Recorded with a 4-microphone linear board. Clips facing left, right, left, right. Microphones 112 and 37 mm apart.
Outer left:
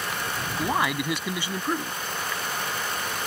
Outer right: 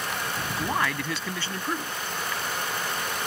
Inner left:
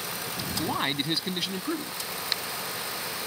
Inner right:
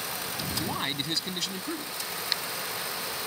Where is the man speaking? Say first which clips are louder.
Outer left 3 dB, inner left 5 dB; 15° left (ahead or behind).